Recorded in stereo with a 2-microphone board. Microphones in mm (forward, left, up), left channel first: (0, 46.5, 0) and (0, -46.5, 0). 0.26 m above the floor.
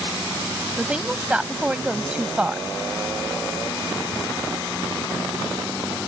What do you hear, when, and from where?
0.8 s a woman speaking: 10° right (ahead or behind)